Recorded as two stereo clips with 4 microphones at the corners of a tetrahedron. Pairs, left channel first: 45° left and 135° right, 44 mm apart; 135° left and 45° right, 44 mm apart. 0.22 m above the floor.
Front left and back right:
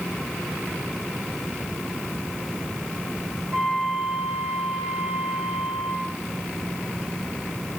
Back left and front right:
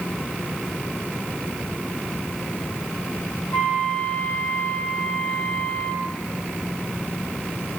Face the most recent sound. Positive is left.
turn(degrees=160)